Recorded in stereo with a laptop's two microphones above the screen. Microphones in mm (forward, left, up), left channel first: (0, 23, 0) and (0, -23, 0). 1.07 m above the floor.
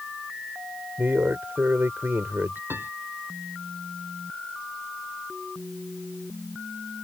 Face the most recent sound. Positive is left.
turn(degrees=-50)  # may be behind; listen again after turning